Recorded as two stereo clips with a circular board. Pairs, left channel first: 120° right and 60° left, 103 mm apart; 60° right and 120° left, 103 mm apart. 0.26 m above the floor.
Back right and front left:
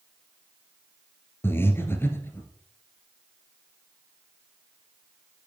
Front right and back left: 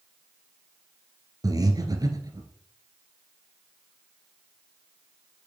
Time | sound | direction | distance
1.4 | breathing | 170° left | 1.8 m